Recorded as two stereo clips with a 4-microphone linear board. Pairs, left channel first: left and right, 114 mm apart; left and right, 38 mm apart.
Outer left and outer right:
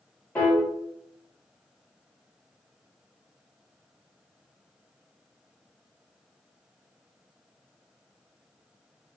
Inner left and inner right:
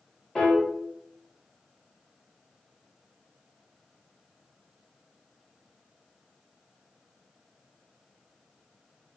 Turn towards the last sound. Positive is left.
turn(degrees=10)  # may be behind; listen again after turning